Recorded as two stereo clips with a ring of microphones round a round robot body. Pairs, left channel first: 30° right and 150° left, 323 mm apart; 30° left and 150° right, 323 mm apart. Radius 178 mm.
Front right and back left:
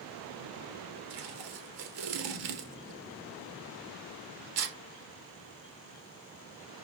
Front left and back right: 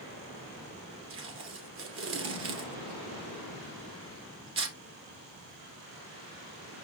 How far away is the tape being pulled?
About 2.5 m.